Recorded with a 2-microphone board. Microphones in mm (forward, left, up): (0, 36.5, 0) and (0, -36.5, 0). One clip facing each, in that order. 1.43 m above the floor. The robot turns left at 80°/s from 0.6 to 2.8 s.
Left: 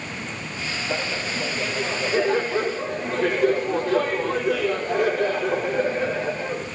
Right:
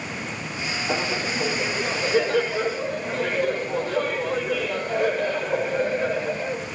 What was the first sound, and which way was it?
Laughter, 100° right.